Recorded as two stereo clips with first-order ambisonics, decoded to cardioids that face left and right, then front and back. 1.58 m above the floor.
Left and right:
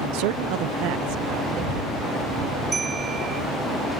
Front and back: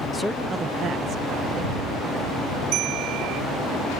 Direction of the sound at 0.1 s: 75° right.